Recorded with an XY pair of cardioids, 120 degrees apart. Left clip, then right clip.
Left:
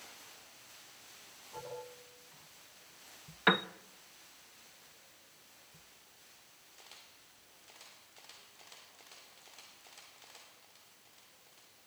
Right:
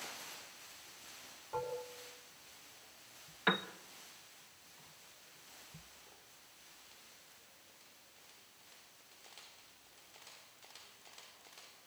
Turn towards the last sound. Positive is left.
turn(degrees=25)